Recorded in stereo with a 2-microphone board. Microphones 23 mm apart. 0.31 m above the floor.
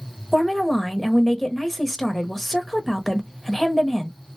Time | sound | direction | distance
0.3 | a woman speaking | 10° left (ahead or behind) | 0.9 m